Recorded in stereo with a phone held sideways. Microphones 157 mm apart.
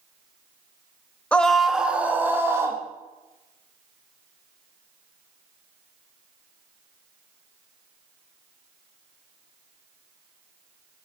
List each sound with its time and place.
1.3 s a scream: 10° left (ahead or behind), 1.3 m; by 2.8 s 15° right (ahead or behind), 3 m